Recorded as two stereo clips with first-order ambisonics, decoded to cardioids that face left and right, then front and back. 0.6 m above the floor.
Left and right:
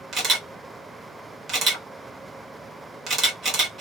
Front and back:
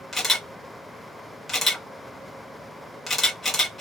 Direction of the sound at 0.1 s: 70° right.